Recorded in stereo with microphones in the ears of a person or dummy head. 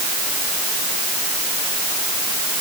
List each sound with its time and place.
Only background noise.